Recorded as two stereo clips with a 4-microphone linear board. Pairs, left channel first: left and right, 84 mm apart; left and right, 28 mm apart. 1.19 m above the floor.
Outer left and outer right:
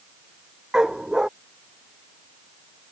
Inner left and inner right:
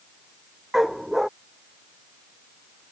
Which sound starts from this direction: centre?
A dog barking, at 0.7 s.